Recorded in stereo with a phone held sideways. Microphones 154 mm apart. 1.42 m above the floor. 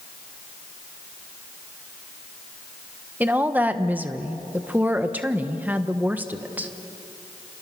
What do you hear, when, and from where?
3.2 s a woman speaking: 10° right (ahead or behind), 1.2 m